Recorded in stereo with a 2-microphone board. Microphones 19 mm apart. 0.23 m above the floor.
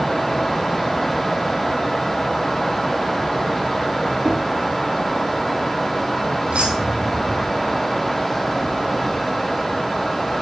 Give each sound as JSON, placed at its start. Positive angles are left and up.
{"t": 4.2, "sound": "knocking", "side_deg": -70, "distance_m": 5.0}
{"t": 6.5, "sound": "keys jangling", "side_deg": -80, "distance_m": 5.5}